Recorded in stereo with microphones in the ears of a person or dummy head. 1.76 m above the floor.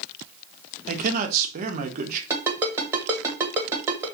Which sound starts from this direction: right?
A man speaking, at 0.9 s.